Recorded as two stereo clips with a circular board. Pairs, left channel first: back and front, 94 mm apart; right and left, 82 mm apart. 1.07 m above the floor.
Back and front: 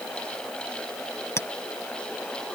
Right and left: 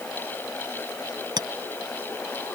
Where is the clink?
120° left.